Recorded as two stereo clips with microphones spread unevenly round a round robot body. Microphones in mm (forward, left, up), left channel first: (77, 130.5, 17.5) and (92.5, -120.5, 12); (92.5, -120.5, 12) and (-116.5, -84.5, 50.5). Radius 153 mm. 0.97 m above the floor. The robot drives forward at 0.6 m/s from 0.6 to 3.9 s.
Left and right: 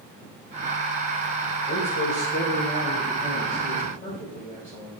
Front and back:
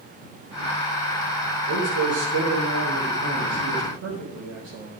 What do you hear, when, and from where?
1.7 s a man speaking: 150° left, 3.5 m; by 4.9 s 160° left, 5 m